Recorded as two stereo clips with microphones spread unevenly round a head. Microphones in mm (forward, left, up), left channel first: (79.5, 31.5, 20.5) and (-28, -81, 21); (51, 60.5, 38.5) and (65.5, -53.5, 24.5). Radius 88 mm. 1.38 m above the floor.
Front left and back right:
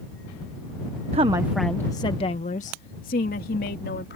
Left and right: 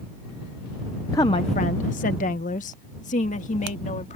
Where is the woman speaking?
170° left; by 4.2 s 80° left.